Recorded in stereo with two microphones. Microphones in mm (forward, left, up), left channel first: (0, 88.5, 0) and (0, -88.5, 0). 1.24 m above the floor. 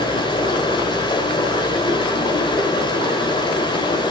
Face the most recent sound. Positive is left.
turn(degrees=25)  # may be behind; listen again after turning